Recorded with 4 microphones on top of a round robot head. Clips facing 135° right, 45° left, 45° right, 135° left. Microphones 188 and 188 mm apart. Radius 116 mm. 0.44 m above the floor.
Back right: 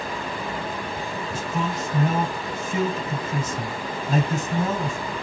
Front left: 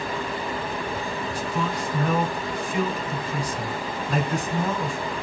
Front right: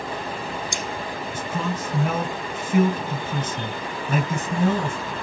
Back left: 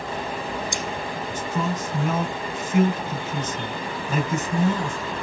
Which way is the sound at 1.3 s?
70° right.